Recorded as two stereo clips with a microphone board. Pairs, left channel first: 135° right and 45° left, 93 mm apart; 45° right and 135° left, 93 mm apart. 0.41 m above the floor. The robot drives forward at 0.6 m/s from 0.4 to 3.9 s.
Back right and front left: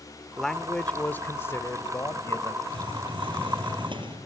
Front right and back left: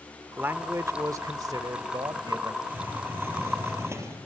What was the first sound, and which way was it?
A man speaking, 145° left.